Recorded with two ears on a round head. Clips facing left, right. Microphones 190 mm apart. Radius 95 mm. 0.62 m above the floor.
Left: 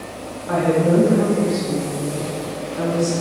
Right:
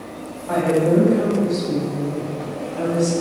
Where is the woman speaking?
15° left (ahead or behind), 4 m.